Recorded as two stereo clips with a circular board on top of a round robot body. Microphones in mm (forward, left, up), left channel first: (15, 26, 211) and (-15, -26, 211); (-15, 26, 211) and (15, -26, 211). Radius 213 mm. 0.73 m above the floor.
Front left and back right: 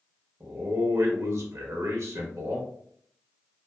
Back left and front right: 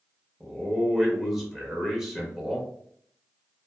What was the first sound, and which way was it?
A man speaking, 145° right.